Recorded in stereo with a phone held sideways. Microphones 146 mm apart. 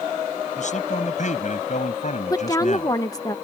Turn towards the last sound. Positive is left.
turn(degrees=25)  # may be behind; listen again after turning